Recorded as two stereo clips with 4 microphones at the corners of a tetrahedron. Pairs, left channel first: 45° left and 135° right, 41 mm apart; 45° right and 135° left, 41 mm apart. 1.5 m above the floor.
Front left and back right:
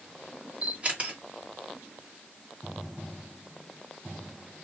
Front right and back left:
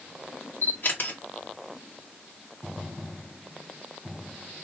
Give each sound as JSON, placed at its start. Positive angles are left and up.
{"t": 0.6, "sound": "a camera shutter", "azimuth_deg": -80, "distance_m": 1.5}